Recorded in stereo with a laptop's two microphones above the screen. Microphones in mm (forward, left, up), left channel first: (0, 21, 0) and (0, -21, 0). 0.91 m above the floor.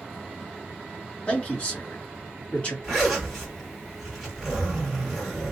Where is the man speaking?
30° left (ahead or behind), 1.8 m.